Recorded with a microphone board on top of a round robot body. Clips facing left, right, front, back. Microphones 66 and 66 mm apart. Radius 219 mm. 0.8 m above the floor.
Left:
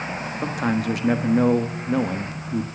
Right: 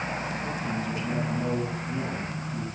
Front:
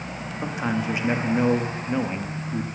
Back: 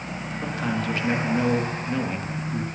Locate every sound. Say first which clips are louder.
0.4 s a man speaking: left 7 dB, front 1 dB; 75° left, 1.4 m